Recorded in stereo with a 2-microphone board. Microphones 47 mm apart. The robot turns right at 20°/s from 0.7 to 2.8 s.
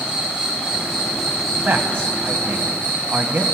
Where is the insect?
10° right, 5 m; by 3.5 s 30° left, 5 m.